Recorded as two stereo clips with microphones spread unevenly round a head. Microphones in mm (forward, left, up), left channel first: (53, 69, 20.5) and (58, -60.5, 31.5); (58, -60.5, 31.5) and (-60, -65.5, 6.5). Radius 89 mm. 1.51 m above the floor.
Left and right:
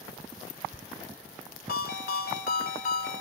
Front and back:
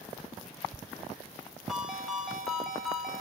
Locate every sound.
1.7 s a ringtone: 90° left, 2.5 m